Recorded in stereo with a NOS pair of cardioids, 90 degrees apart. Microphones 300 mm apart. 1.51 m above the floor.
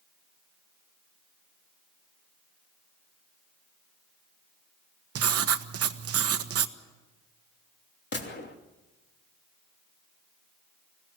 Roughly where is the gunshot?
Ahead left.